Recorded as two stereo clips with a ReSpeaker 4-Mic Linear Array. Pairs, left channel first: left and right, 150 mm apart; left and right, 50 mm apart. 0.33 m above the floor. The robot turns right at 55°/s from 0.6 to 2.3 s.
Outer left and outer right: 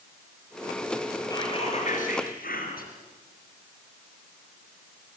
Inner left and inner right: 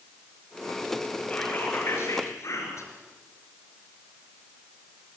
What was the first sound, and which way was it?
Whispering, 25° left.